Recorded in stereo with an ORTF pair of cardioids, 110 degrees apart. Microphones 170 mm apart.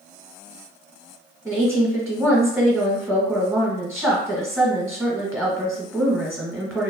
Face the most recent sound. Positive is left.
turn(degrees=0)